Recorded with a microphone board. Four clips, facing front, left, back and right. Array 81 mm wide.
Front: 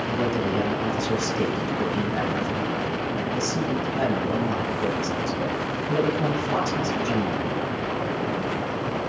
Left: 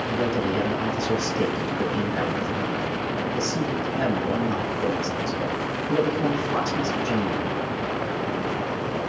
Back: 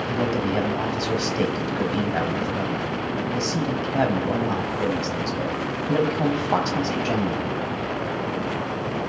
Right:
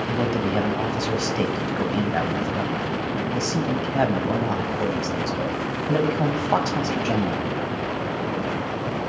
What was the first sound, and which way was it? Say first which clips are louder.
A man speaking: even, back 1 dB; 125° right.